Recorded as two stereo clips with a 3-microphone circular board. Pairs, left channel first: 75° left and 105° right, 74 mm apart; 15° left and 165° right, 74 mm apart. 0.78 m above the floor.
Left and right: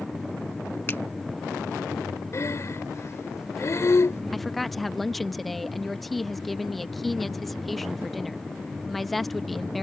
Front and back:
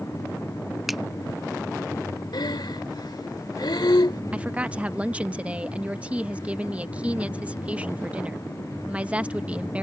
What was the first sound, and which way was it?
A finger snap, 110° left.